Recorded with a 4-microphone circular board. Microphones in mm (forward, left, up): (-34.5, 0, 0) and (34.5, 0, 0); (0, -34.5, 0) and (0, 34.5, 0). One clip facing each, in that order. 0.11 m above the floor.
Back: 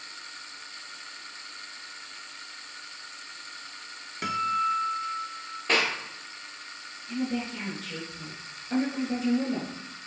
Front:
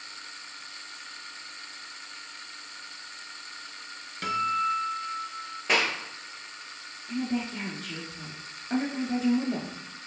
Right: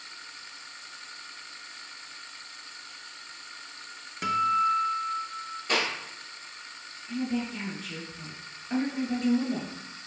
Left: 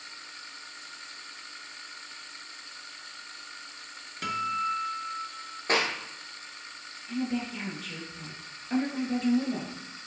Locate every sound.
4.2 s a guitar: 135° right, 0.7 m
5.7 s a clap: 80° left, 1.2 m
7.1 s a woman speaking: 10° right, 1.2 m